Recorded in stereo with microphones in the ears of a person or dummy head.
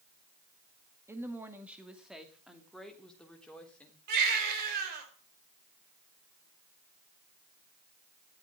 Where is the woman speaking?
15° right (ahead or behind), 1.8 m; by 4.0 s 5° left (ahead or behind), 3.5 m.